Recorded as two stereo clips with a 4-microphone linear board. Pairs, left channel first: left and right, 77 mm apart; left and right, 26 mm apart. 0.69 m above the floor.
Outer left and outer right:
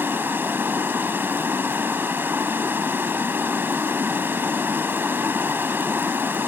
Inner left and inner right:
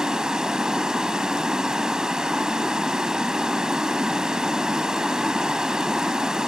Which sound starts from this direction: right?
Running water, at 0.0 s.